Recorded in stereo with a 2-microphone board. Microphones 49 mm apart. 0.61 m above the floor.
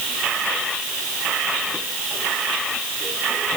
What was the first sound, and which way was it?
Only background noise.